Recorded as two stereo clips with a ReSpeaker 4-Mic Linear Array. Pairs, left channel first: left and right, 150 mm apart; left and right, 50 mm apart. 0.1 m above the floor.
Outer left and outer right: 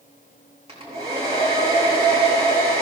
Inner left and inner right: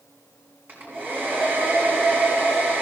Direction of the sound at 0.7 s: 45° right (ahead or behind).